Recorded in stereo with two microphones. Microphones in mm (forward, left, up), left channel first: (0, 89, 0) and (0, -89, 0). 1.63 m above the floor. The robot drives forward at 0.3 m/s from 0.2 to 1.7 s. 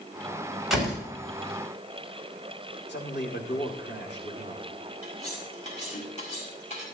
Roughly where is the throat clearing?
I don't hear throat clearing.